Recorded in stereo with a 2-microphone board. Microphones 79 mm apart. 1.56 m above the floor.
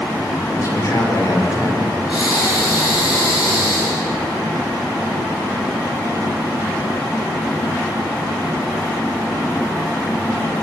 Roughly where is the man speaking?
Left.